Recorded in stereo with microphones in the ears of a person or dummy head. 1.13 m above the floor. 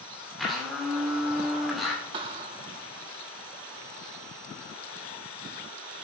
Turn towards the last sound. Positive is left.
turn(degrees=-30)  # may be behind; listen again after turning